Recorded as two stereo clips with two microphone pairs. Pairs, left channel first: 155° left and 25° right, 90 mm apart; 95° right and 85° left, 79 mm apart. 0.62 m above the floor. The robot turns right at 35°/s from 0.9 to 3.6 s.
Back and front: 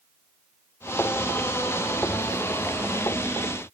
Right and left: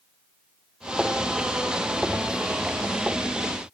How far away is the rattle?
No rattle in this recording.